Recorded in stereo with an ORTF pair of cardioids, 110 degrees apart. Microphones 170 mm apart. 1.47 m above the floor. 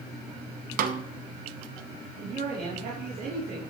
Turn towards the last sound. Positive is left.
turn(degrees=-65)